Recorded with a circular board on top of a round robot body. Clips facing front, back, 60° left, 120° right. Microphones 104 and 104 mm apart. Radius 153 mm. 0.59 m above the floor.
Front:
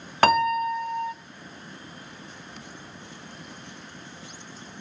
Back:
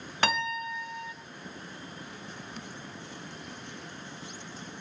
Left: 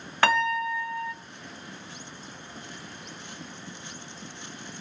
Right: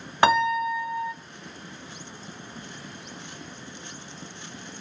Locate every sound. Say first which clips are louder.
0.2 s a piano: front 10 dB, right 4 dB; 45° right, 0.5 m